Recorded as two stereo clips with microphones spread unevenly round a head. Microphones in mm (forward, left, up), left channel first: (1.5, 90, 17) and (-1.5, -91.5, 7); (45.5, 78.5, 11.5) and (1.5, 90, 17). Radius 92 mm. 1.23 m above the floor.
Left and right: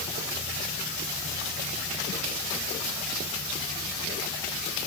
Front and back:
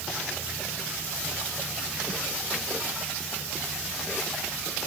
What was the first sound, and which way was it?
Only background noise.